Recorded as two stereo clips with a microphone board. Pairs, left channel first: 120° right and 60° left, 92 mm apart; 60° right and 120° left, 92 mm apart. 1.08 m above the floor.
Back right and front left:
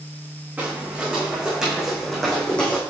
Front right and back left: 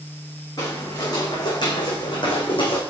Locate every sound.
0.6 s footsteps: 15° right, 4.5 m; by 2.8 s 45° right, 3.5 m